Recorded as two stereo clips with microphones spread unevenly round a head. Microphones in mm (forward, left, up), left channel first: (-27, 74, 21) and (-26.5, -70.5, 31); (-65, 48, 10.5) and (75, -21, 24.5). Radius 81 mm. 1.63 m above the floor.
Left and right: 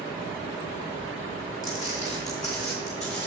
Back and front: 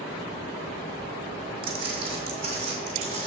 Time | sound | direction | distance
1.6 | footsteps | 20° left | 3 m